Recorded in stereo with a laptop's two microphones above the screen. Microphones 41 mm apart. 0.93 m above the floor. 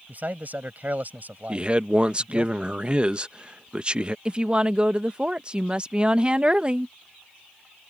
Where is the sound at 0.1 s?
45° right (ahead or behind).